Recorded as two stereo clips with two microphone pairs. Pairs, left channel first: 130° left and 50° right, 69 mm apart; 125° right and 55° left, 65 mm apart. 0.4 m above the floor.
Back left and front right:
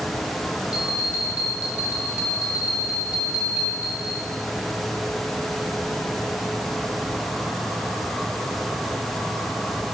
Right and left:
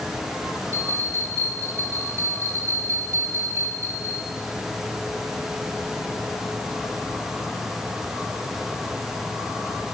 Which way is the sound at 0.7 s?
20° left.